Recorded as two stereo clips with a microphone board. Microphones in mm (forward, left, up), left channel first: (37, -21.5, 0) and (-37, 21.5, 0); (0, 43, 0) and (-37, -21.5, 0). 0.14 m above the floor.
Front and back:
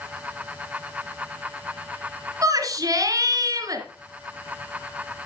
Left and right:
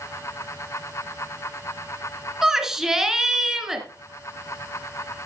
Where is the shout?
160° left, 1.8 m.